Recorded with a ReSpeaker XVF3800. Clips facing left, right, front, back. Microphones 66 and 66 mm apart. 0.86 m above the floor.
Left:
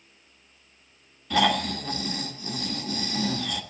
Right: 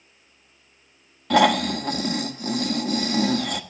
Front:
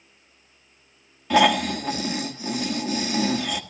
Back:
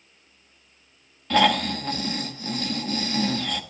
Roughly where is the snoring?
Right.